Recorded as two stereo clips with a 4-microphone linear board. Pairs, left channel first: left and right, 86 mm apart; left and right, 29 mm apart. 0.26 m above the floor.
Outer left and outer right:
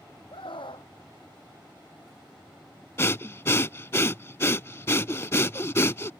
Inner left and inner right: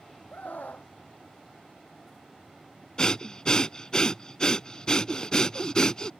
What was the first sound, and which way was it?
A scream, 80° left.